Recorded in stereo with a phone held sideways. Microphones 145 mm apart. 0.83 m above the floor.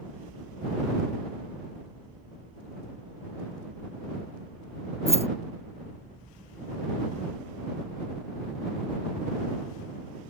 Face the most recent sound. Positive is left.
turn(degrees=-45)  # may be behind; listen again after turning